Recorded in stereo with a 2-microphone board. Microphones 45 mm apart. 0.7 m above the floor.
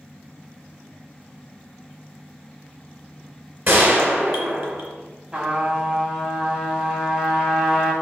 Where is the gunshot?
50° right (ahead or behind), 2.5 m.